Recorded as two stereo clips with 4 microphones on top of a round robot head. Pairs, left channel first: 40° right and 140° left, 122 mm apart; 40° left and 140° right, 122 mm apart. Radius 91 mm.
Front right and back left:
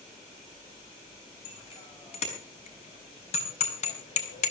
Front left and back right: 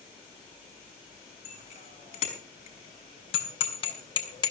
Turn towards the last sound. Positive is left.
turn(degrees=-15)